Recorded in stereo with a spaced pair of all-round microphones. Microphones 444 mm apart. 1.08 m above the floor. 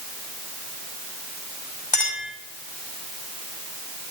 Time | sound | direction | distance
1.9 | a clink | 60° left (ahead or behind) | 4.5 m